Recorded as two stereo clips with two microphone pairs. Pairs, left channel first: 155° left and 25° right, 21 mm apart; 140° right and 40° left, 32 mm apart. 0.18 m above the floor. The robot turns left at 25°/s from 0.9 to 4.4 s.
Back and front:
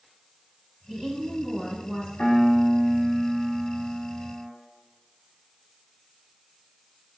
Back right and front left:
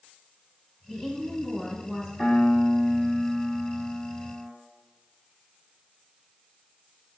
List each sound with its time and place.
0.9 s a woman speaking: 25° right, 1.3 m; by 2.1 s 55° right, 1.3 m
2.2 s a piano: 120° left, 1.0 m; by 4.5 s 65° left, 1.0 m